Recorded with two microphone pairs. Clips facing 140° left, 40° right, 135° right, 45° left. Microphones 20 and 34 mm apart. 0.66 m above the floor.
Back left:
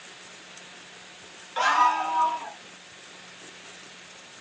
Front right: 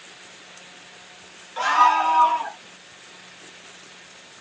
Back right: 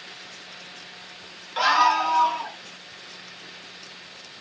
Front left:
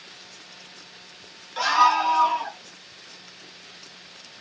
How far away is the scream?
About 0.6 m.